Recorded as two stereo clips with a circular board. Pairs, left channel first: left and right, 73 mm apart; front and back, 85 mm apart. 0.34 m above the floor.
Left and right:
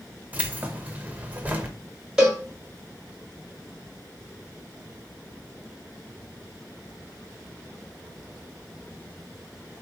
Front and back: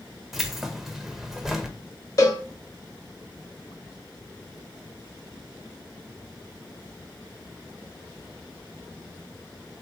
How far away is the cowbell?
About 1.4 m.